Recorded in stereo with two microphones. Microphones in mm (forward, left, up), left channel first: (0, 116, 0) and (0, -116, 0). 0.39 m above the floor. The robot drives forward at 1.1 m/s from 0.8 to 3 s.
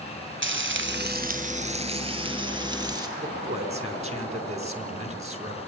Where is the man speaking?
30° right (ahead or behind), 4 m.